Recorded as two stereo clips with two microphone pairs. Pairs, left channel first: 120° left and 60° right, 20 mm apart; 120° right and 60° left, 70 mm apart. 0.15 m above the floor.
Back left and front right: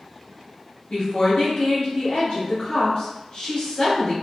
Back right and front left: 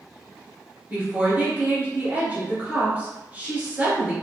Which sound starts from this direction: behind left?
A woman speaking, at 0.9 s.